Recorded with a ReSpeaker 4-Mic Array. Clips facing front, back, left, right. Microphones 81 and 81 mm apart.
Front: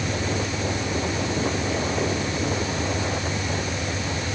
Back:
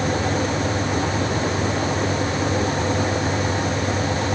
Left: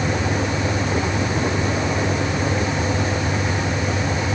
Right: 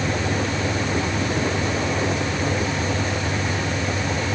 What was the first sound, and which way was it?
Only background noise.